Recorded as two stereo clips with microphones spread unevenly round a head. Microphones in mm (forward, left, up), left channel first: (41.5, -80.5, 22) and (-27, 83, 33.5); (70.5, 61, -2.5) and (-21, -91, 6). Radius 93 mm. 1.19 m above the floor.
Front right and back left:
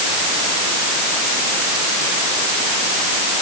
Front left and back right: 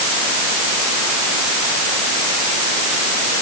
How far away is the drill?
No drill in this recording.